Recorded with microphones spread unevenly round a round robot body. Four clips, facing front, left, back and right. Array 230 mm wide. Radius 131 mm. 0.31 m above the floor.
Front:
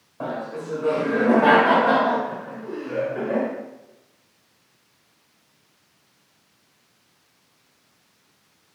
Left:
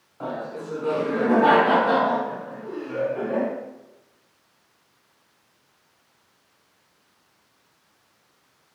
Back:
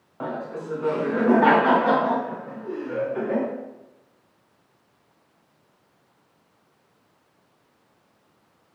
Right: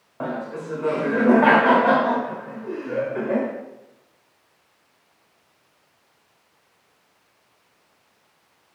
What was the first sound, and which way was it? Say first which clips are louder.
Laughter: right 2 dB, front 1 dB; 100° right.